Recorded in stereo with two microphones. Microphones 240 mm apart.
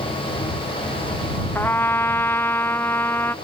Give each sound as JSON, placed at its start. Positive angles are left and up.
{"t": 1.6, "sound": "a trumpet", "side_deg": 10}